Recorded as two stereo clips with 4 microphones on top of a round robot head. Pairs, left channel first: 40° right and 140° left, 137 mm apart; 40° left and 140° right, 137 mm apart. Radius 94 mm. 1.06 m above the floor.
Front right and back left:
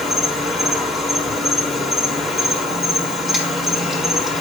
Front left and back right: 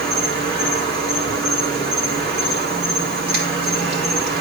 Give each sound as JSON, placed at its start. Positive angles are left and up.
{"t": 0.0, "sound": "an insect", "azimuth_deg": -135, "distance_m": 2.5}